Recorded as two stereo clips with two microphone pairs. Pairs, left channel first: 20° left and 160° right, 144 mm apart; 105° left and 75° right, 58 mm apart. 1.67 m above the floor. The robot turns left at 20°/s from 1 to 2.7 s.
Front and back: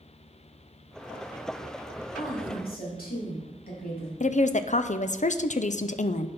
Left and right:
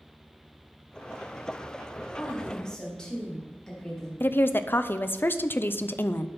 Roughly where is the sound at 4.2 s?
Ahead left.